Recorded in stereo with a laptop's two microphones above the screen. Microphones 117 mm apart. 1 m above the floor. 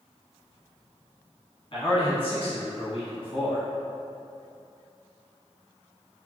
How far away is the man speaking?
About 1.3 m.